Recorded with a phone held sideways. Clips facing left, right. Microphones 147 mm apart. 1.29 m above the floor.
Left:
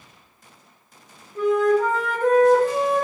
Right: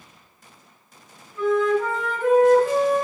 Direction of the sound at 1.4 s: 40° left (ahead or behind).